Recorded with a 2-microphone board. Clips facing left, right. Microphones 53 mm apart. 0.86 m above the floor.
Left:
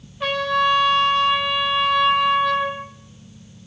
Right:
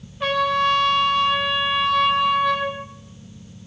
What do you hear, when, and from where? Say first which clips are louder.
0.2 s a trumpet: even; centre (ahead or behind), 4 m